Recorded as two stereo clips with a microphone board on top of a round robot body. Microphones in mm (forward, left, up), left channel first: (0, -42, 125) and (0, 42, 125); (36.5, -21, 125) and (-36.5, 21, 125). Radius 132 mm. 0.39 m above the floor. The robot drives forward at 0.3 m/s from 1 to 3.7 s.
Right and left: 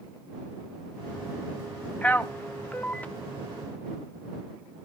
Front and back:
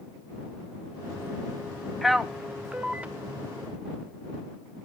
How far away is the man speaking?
About 0.8 m.